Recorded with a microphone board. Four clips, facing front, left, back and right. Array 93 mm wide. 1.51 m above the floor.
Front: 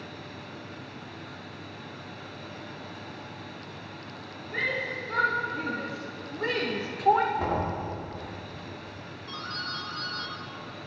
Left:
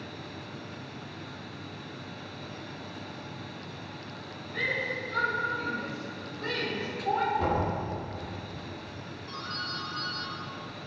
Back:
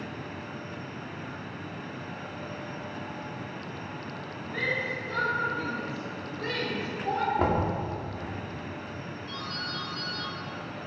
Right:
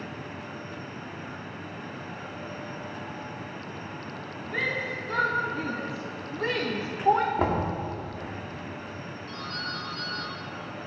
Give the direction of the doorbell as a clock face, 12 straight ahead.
12 o'clock.